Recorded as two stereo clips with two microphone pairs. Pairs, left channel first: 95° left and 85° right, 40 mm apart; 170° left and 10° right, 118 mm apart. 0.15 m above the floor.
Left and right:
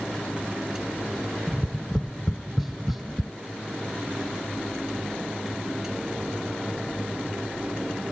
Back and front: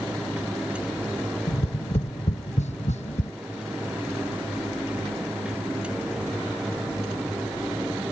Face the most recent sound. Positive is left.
turn(degrees=-175)